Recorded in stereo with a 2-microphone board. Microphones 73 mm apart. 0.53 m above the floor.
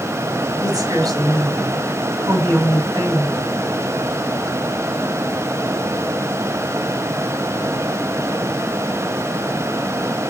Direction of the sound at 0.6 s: 65° right (ahead or behind).